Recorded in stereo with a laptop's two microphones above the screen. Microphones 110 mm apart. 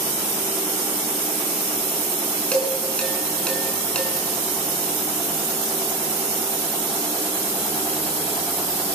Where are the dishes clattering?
10° left (ahead or behind), 8 m.